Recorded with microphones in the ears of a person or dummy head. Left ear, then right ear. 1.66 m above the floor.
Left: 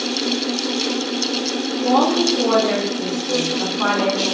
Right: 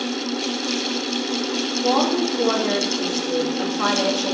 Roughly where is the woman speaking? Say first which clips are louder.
Left 4 dB; right.